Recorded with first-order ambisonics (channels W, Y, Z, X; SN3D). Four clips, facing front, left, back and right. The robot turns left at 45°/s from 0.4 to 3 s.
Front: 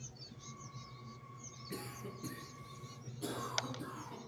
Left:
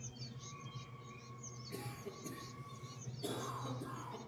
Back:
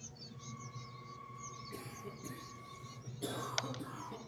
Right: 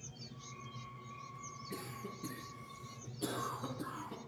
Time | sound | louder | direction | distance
1.7 | a cough | right 1 dB, front 2 dB | 20° right | 6 m